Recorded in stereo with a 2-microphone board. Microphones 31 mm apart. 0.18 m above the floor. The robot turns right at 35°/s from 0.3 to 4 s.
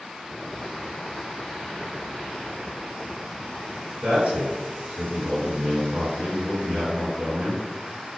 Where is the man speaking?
30° right (ahead or behind), 1.7 m.